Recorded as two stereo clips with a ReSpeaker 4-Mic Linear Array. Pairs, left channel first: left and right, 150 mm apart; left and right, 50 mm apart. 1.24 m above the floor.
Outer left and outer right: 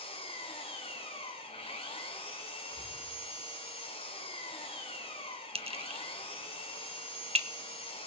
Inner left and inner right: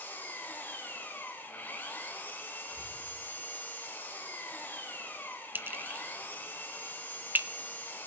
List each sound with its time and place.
0.0 s an engine running: 40° left (ahead or behind), 2.5 m
2.7 s breathing: 25° right (ahead or behind), 6 m
5.5 s a clink: 40° right (ahead or behind), 0.7 m